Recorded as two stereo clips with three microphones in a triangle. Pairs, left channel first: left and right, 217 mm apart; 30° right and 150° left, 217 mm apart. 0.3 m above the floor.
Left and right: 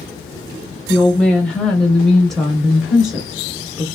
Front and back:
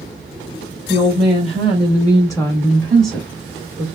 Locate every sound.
0.9 s a woman speaking: 10° left, 1.7 m; by 3.9 s 160° right, 1.3 m